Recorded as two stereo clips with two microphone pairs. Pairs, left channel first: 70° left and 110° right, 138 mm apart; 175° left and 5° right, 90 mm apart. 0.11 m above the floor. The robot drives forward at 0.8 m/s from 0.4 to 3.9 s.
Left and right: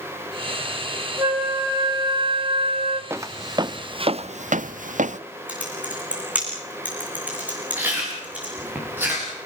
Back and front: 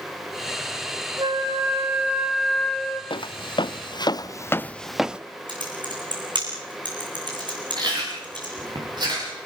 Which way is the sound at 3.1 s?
Straight behind.